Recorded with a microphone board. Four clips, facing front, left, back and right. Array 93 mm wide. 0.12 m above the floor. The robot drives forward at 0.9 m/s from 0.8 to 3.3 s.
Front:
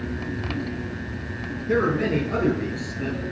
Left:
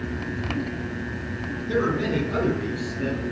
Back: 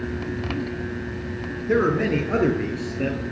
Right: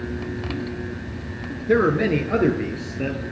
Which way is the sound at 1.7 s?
95° right.